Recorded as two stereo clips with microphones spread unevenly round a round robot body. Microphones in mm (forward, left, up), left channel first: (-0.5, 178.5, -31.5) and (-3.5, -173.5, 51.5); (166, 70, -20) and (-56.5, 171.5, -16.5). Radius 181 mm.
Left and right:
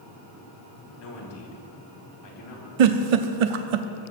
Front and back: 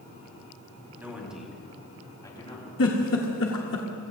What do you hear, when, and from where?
1.0 s a man speaking: 75° left, 4.5 m; by 2.7 s 45° left, 4.5 m
2.8 s a giggle: 80° right, 0.9 m